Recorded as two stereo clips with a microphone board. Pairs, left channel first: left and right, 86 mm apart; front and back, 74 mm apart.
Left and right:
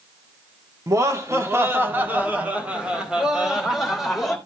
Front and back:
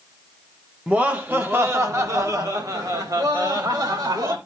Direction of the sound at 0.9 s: 115° right.